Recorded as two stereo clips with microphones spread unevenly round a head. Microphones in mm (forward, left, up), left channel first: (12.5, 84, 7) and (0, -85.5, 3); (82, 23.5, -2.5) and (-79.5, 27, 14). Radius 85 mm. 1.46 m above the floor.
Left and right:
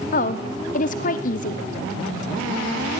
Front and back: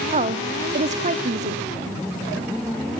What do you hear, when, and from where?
0.1 s a woman speaking: 130° left, 0.7 m